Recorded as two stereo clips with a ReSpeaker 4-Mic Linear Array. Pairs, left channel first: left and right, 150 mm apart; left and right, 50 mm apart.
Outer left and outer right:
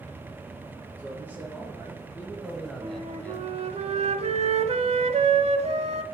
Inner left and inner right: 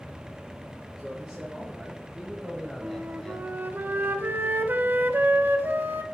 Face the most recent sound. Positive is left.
turn(degrees=-50)  # may be behind; listen again after turning